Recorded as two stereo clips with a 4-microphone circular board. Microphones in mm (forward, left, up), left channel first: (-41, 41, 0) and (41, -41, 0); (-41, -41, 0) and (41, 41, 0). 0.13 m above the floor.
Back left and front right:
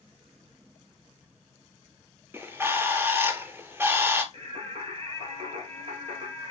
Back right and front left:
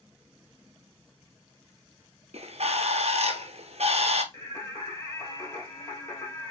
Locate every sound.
2.3 s a bird: 25° left, 0.7 m
4.3 s singing: 70° right, 1.4 m